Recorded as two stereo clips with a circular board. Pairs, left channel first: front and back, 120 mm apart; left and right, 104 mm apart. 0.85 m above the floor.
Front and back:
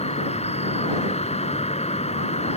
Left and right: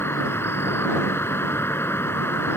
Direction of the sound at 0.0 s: 25° left.